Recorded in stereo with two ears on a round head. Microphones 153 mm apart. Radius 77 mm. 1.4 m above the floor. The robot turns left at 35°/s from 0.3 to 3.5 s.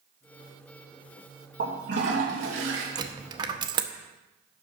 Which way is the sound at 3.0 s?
25° right (ahead or behind).